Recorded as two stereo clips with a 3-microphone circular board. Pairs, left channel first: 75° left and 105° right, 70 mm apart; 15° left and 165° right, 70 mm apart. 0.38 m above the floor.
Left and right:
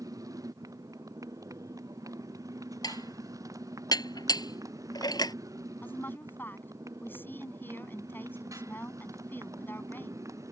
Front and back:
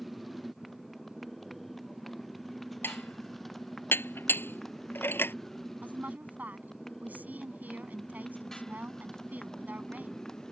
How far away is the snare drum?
I don't hear a snare drum.